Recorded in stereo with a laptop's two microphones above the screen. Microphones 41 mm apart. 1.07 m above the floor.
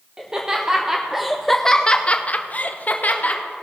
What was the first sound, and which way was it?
Laughter, 20° right (ahead or behind).